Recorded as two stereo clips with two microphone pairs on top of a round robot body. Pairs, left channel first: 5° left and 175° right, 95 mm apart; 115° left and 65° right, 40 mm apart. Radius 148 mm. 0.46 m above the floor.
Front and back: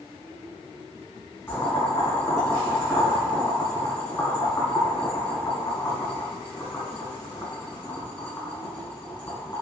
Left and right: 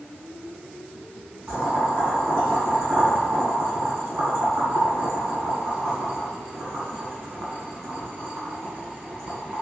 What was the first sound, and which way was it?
Boiling, 65° right.